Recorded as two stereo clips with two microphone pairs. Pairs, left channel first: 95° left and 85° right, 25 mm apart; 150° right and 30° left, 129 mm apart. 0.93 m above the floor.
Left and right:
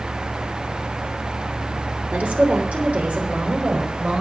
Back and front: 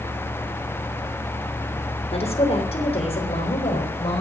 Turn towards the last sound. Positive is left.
turn(degrees=-105)